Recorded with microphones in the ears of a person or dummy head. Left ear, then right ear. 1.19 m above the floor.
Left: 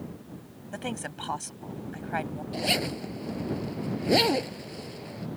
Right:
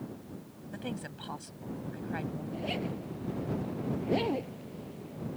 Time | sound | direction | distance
0.7 | a woman speaking | 35° left (ahead or behind) | ?
2.5 | a zipper | 75° left (ahead or behind) | ?